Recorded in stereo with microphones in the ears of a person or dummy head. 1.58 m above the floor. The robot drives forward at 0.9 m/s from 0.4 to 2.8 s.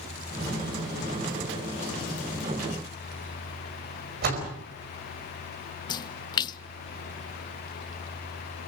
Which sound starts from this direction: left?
A splash, at 5.9 s.